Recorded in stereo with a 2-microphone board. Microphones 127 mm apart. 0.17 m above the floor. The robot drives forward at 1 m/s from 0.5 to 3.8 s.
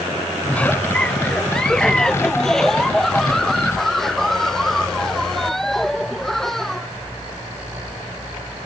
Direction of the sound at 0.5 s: 10° left (ahead or behind).